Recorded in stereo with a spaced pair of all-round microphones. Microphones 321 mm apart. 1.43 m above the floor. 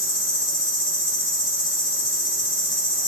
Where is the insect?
35° right (ahead or behind), 6 m.